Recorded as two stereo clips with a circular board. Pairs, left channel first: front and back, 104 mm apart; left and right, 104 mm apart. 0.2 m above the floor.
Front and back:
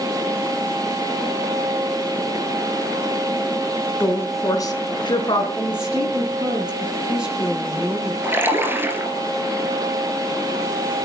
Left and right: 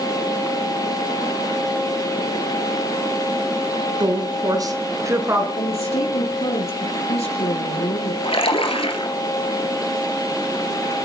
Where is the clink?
I don't hear a clink.